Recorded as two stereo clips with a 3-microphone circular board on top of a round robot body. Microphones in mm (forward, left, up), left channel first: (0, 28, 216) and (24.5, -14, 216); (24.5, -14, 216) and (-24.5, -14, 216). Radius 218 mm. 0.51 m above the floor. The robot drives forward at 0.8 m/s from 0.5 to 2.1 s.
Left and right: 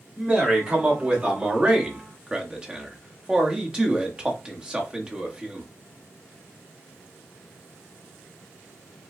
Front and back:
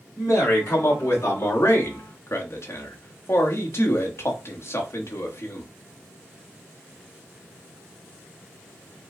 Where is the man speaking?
5° left, 2.5 m; by 5.7 s 10° left, 1.6 m.